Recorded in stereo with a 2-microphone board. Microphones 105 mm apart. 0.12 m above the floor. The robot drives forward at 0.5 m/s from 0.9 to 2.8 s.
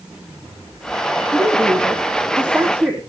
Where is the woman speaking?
15° right (ahead or behind), 6 m.